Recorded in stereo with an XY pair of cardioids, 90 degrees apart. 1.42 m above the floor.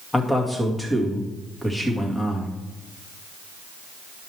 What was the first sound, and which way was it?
A man speaking, 10° left.